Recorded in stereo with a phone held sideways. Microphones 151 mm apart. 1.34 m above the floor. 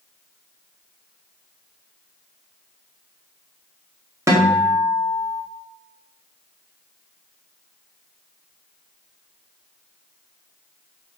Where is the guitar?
20° right (ahead or behind), 1.9 m.